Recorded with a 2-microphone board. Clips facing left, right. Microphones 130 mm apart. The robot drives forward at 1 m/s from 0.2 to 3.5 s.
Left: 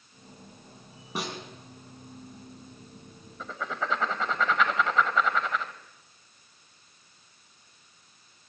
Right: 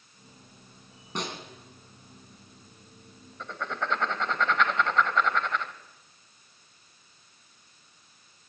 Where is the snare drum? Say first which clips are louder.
Even; 5° left (ahead or behind), 2.5 m.